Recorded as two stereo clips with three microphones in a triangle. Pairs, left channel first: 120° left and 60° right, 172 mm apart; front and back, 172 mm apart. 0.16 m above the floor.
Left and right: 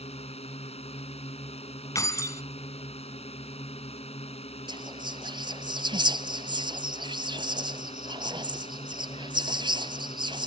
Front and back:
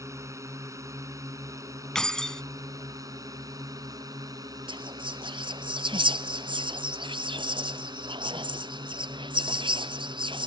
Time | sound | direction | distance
0.0 | a drone | 120° left | ?
1.9 | keys jangling | 80° left | ?
4.7 | whispering | 120° right | ?